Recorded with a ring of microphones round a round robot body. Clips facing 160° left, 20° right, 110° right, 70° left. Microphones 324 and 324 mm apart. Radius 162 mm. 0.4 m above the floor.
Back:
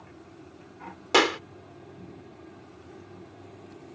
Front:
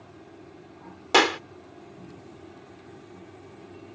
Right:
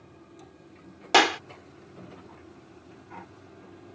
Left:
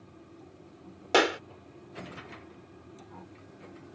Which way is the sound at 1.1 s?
105° right.